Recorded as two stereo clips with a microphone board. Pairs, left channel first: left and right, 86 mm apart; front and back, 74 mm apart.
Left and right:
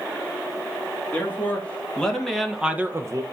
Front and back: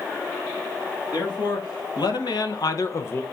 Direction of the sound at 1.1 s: 20° left.